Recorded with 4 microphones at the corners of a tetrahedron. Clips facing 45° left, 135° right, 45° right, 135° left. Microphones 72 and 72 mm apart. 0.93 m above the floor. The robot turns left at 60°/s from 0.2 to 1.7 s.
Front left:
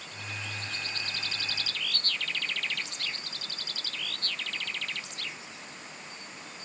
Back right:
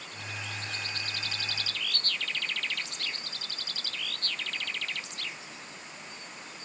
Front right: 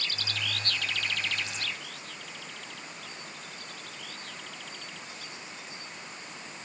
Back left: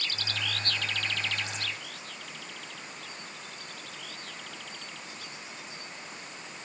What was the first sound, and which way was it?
Only background noise.